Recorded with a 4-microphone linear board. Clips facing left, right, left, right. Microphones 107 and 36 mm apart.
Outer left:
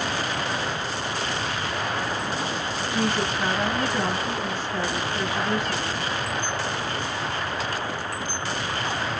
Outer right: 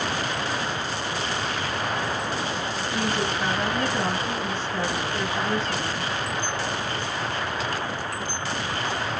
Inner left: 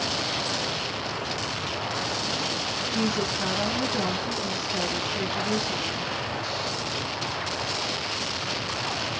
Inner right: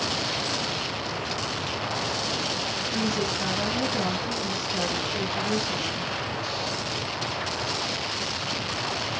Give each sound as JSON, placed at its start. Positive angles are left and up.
{"t": 2.9, "sound": "a woman speaking", "side_deg": 0, "distance_m": 1.9}